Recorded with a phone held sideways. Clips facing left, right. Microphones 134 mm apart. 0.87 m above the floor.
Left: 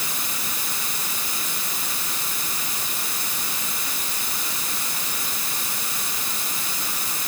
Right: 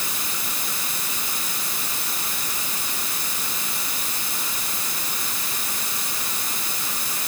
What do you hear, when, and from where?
Only background noise.